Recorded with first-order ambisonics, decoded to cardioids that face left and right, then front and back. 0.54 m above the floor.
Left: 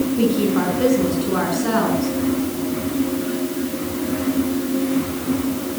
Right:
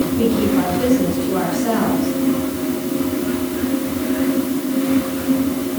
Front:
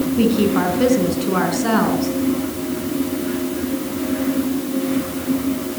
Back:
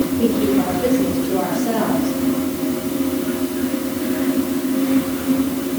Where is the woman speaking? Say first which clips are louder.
Right 1 dB, front 2 dB; 15° left, 4.5 m.